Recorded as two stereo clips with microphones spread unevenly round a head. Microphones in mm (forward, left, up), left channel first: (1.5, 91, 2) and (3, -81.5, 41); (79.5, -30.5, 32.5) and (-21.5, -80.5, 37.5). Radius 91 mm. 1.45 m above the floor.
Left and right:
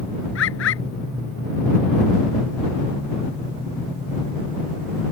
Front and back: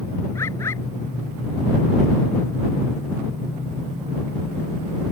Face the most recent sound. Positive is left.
turn(degrees=105)